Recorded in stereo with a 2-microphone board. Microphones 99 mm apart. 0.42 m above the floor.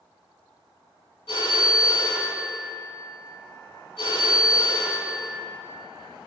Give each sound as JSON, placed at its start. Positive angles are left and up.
{"t": 1.3, "sound": "a phone ringing", "side_deg": 80, "distance_m": 3.0}